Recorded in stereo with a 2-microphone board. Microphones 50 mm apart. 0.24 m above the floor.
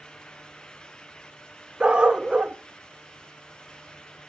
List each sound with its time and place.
1.8 s a dog barking: 20° right (ahead or behind), 0.6 m